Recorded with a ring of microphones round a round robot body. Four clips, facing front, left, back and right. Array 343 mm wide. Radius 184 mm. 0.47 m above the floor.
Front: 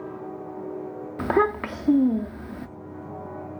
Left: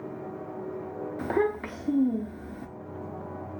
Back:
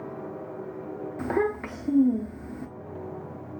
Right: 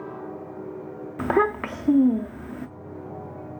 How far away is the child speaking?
About 0.5 m.